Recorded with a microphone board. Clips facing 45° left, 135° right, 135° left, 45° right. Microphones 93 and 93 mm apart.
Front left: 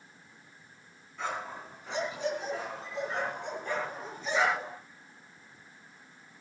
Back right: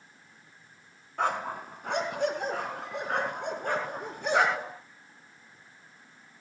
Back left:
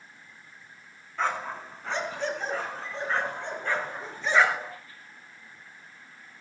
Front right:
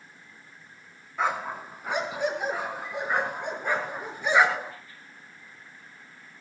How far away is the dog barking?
About 2.5 m.